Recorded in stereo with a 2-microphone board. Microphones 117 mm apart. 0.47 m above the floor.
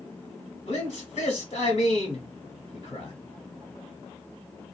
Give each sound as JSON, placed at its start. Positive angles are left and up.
{"t": 0.7, "sound": "a man speaking", "side_deg": 70, "distance_m": 1.7}